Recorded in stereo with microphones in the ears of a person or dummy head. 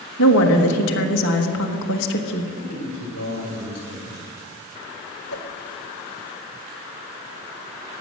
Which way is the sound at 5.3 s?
75° left (ahead or behind).